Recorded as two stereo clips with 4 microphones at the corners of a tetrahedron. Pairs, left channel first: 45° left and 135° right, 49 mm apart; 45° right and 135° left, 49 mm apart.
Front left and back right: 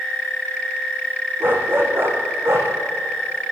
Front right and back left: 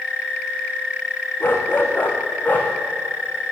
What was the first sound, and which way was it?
A dog barking, 90° right.